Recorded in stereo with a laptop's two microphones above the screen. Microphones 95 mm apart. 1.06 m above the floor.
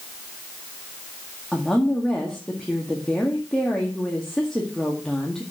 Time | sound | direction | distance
1.5 | a woman speaking | 5° left (ahead or behind) | 1.8 m